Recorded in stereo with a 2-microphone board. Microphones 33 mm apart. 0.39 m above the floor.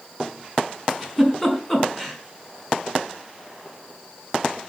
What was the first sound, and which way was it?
A giggle, 10° left (ahead or behind).